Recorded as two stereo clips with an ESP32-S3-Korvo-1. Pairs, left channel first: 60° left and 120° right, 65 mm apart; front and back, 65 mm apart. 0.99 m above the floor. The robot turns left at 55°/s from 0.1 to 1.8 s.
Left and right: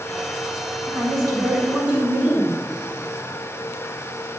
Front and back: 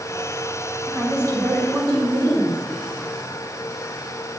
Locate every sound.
0.9 s a woman speaking: 135° right, 2 m; by 2.6 s 175° left, 2 m